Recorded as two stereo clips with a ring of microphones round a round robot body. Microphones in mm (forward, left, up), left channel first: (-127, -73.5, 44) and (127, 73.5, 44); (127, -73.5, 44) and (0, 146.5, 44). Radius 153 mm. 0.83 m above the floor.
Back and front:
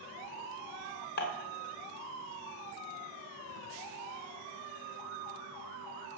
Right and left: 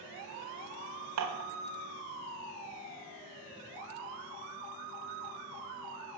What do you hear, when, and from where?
1.2 s dishes clattering: 150° left, 1.1 m